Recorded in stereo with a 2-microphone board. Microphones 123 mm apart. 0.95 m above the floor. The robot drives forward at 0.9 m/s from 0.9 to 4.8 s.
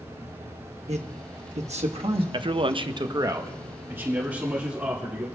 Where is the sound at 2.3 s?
40° right (ahead or behind), 0.6 m; by 5.3 s 10° right (ahead or behind), 2 m.